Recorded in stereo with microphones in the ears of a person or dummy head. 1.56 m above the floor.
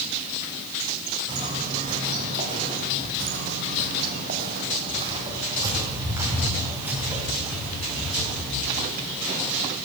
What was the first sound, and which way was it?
Footsteps, 30° right (ahead or behind).